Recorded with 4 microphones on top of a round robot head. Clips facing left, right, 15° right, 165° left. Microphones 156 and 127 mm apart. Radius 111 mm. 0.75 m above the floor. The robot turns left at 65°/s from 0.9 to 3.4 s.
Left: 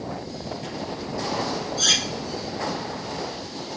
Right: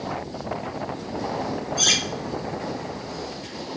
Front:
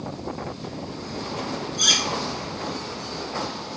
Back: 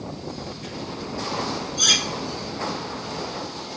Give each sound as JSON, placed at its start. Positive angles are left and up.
{"t": 1.8, "sound": "cutlery clinking", "azimuth_deg": -155, "distance_m": 0.9}